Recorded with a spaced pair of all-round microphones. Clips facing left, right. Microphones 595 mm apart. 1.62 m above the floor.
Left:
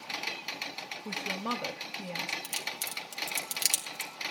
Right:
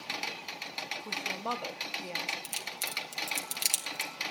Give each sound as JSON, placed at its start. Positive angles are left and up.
{"t": 1.1, "sound": "a woman speaking", "side_deg": 40, "distance_m": 1.7}
{"t": 2.4, "sound": "a crack", "side_deg": 40, "distance_m": 2.0}